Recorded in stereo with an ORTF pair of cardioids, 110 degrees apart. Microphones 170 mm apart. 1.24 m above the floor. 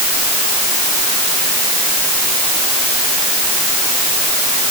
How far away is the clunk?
I don't hear a clunk.